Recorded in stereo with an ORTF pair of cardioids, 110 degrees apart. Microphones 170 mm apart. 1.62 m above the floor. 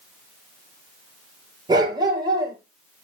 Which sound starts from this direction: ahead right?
A dog barking, at 1.7 s.